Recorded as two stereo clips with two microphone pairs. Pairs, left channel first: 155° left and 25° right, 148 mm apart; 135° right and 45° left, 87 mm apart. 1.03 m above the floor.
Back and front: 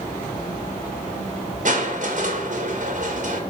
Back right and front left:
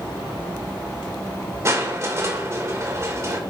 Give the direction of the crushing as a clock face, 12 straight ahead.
12 o'clock.